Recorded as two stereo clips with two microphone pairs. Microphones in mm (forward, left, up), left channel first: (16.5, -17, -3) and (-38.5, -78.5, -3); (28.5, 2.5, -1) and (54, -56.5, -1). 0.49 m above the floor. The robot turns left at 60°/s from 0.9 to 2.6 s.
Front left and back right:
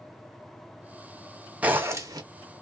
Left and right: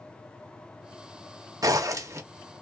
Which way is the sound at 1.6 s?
65° right.